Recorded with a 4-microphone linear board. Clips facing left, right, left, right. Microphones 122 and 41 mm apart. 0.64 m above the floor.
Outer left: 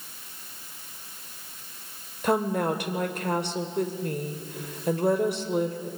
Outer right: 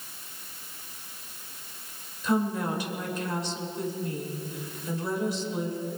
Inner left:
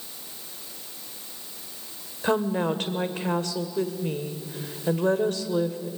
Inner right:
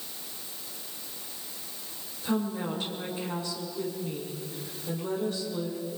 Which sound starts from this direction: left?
A woman speaking, at 2.2 s.